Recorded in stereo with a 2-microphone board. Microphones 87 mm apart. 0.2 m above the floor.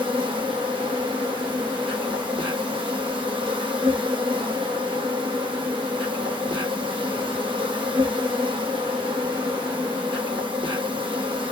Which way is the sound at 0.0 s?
75° right (ahead or behind).